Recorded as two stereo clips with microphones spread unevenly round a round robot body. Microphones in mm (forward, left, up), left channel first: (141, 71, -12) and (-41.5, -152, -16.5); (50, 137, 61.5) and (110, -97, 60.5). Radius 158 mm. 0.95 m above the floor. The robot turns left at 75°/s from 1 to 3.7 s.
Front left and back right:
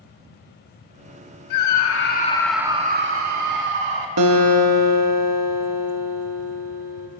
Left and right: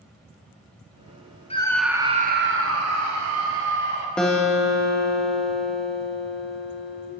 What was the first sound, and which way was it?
A scream, 40° left.